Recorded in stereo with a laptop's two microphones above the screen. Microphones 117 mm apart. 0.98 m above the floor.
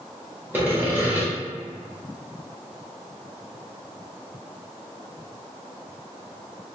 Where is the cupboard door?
I don't hear a cupboard door.